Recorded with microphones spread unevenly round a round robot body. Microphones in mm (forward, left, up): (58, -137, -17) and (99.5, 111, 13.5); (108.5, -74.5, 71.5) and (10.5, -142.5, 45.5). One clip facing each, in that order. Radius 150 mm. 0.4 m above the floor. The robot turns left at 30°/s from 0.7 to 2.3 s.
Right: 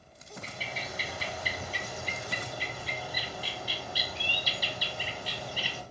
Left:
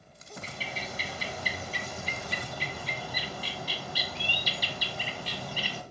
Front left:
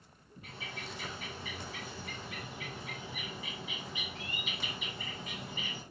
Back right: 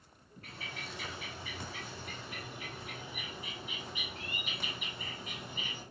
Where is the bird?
115° left, 0.7 m; by 5.8 s 70° left, 0.7 m.